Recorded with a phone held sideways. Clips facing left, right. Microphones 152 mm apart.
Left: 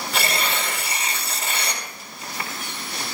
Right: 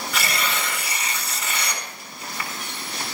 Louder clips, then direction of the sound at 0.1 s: Left 2 dB; 30° left (ahead or behind).